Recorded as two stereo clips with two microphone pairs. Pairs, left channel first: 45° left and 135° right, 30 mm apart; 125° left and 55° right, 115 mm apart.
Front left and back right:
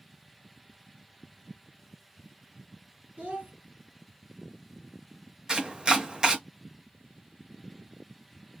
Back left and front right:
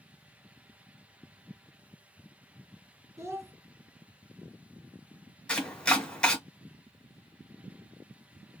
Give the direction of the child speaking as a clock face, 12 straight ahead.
4 o'clock.